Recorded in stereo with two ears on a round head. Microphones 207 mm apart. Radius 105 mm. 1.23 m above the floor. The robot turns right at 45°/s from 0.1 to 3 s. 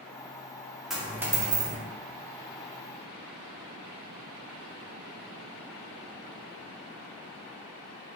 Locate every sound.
0.9 s a dropped coin: straight behind, 0.8 m; by 1.8 s 140° right, 0.8 m